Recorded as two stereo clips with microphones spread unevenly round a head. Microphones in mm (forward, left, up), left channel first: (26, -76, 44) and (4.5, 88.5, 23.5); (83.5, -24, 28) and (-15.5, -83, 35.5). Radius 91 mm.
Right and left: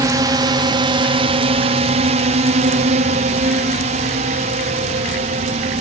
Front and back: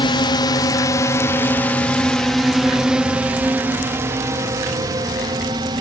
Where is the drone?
45° left; by 5.8 s 150° left.